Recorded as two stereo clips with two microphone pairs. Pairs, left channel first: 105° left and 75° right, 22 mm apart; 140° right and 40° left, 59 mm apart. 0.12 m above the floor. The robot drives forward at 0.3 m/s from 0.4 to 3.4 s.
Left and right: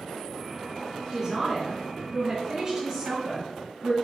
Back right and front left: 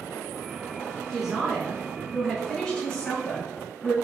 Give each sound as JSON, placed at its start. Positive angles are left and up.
{"t": 1.1, "sound": "a man speaking", "azimuth_deg": -50, "distance_m": 1.5}